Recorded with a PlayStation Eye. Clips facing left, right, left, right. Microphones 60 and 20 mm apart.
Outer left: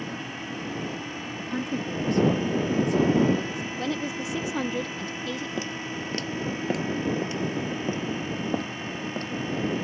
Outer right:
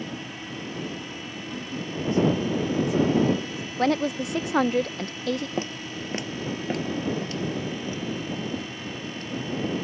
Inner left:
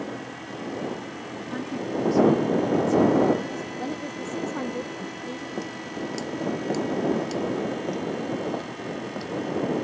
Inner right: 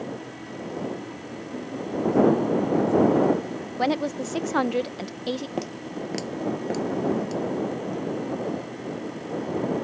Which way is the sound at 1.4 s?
70° left (ahead or behind).